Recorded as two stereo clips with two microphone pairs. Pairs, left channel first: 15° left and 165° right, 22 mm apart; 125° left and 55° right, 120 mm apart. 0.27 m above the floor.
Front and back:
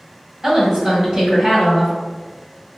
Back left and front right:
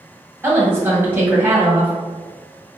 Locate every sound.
0.4 s a woman speaking: 120° right, 1.6 m